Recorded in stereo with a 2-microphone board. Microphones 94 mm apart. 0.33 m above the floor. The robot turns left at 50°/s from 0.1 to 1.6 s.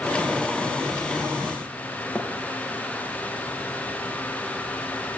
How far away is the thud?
About 6.5 m.